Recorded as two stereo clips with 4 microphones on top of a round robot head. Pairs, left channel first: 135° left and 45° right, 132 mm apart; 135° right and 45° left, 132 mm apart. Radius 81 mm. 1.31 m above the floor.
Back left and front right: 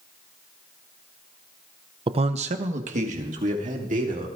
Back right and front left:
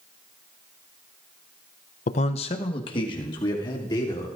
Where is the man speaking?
100° right, 0.6 m; by 4.3 s 75° right, 3 m.